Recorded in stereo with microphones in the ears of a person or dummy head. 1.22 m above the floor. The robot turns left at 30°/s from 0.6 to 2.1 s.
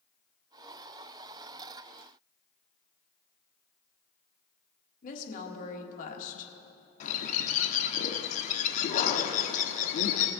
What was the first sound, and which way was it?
A woman speaking, 45° left (ahead or behind).